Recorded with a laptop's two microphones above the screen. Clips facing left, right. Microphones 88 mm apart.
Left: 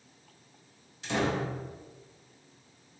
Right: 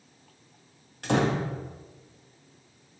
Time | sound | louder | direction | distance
1.0 | a door slam | right 4 dB | 60° right (ahead or behind) | 1.1 m